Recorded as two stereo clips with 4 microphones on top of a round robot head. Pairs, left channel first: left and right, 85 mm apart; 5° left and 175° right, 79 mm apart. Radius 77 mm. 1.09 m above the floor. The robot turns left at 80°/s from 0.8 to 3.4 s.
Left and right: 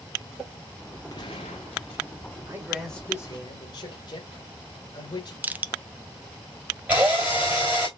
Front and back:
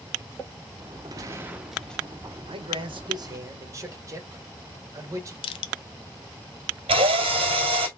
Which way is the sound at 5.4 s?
20° right.